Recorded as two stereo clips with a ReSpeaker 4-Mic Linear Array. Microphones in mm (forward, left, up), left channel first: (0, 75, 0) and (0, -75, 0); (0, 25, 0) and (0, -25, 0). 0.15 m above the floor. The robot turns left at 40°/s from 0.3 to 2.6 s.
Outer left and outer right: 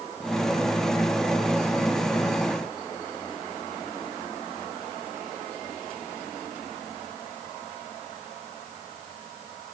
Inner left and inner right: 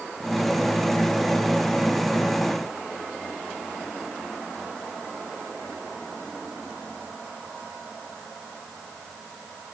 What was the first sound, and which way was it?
Only background noise.